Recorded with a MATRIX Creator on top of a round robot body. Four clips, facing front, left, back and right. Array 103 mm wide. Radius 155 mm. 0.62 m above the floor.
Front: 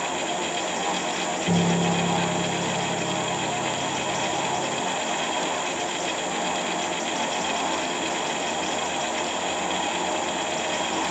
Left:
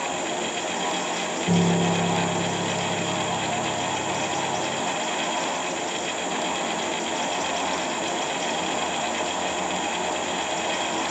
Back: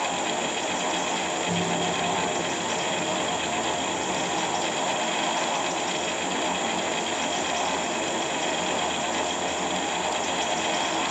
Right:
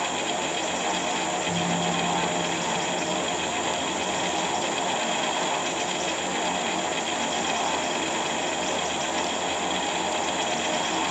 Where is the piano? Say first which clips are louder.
Left 4 dB, front 6 dB; 45° left, 5.5 m.